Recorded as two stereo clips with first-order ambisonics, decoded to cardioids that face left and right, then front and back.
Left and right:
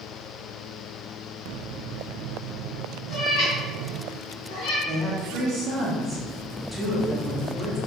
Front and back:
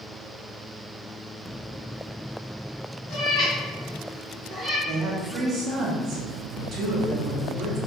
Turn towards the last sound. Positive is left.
turn(degrees=-165)